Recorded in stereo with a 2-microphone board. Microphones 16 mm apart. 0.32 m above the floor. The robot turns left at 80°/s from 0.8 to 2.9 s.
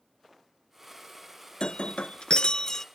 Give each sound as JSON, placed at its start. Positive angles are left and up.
{"t": 1.6, "sound": "breaking glass", "azimuth_deg": 120, "distance_m": 0.6}